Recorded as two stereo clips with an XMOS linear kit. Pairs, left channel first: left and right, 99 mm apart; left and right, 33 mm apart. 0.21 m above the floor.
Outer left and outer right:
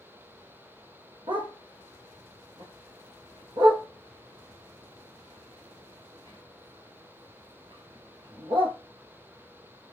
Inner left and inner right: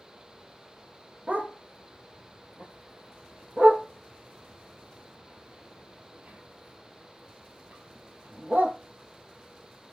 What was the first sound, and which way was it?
A dog barking, 55° right (ahead or behind).